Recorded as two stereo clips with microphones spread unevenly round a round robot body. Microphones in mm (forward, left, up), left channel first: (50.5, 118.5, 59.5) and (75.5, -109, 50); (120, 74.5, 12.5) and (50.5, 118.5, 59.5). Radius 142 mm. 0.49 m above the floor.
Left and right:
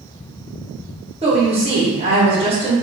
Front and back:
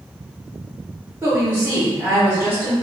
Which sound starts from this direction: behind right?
A woman speaking, at 1.2 s.